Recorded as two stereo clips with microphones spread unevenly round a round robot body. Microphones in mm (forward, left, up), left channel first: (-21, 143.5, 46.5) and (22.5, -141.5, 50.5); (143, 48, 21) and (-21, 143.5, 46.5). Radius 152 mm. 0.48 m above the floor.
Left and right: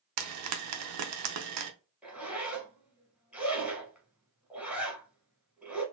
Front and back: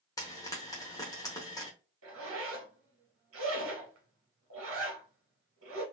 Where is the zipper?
165° right, 0.9 m.